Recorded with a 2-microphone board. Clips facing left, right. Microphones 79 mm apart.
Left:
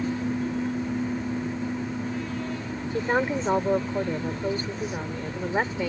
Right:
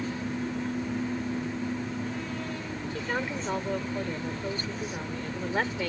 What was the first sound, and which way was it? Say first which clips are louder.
A woman speaking: left 8 dB; 35° left (ahead or behind).